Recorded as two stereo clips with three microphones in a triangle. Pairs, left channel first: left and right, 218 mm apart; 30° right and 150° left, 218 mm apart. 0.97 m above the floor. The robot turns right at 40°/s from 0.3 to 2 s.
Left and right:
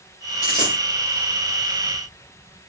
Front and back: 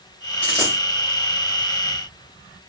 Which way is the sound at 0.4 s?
35° left.